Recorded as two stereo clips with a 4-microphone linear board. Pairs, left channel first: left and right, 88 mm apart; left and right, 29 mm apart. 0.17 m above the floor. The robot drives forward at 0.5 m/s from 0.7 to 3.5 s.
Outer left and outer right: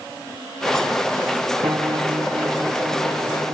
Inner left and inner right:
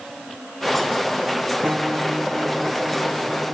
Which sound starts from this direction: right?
A piano, at 1.6 s.